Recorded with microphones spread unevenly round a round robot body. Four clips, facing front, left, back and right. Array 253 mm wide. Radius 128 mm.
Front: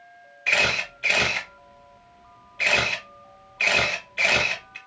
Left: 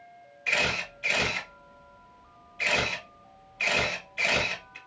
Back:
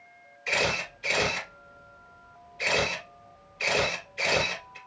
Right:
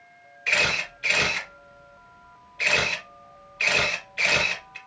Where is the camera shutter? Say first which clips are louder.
Right 3 dB, front 3 dB; 15° right, 2.5 m.